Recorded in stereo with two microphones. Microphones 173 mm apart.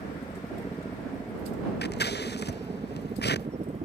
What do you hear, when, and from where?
0.0 s a helicopter: 20° left (ahead or behind); by 3.9 s 45° right (ahead or behind)
1.8 s scissors: 70° left (ahead or behind)